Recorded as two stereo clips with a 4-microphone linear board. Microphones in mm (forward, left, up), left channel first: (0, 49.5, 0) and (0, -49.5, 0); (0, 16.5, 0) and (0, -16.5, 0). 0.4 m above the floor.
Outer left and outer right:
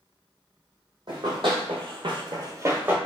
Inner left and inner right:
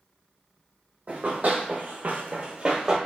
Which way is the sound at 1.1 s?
50° right (ahead or behind).